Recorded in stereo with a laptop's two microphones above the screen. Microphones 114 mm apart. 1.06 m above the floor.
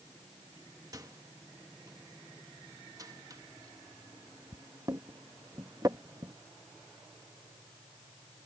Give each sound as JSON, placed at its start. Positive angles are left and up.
{"t": 0.9, "sound": "a microwave", "side_deg": -30}